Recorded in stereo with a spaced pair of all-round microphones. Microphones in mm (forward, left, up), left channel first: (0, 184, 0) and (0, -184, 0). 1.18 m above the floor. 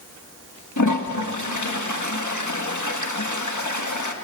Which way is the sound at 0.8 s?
55° left (ahead or behind).